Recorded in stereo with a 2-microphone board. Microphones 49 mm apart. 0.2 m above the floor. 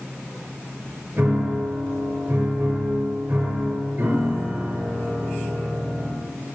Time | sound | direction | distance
1.2 | a piano | 35° right (ahead or behind) | 4 m